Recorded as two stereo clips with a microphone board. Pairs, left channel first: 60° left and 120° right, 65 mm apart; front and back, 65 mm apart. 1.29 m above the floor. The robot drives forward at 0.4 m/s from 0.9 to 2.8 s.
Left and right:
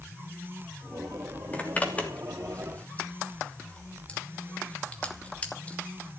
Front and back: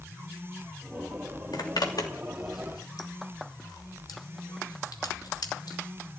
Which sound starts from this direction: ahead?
A zipper, at 1.5 s.